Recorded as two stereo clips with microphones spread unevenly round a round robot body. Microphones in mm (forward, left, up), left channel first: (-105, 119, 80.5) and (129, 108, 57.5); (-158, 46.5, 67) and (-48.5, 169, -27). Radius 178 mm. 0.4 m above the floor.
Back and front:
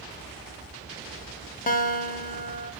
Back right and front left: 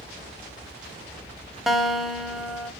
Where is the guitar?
120° left, 0.8 m.